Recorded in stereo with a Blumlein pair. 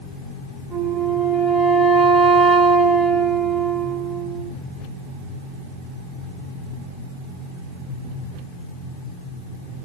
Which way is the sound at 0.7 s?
10° right.